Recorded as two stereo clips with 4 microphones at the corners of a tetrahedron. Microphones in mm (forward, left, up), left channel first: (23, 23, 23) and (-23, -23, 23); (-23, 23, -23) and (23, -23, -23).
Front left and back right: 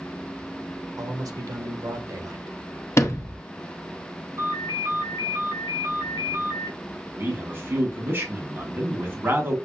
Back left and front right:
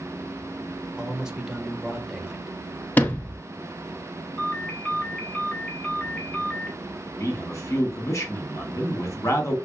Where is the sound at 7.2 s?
170° left, 1.5 m.